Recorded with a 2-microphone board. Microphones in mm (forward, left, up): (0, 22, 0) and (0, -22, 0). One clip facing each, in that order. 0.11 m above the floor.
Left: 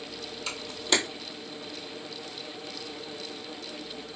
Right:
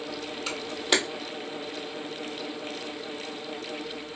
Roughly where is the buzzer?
No buzzer in this recording.